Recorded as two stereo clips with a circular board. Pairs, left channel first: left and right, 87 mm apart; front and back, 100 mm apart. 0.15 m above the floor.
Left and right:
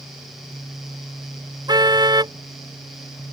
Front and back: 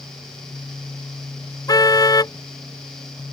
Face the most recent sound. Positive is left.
turn(degrees=-55)